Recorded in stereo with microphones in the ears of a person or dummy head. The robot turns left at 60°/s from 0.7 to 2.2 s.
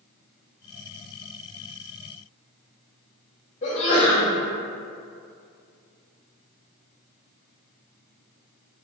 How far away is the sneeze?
About 0.9 m.